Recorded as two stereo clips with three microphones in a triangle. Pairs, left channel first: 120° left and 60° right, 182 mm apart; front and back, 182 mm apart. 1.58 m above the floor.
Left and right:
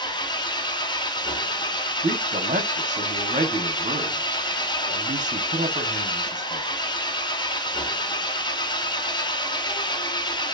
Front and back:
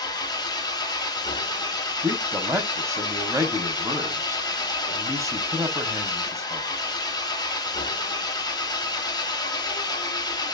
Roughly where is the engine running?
Ahead left.